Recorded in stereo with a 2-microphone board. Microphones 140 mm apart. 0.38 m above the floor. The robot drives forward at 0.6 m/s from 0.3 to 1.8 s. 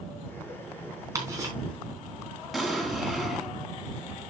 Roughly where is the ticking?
Right.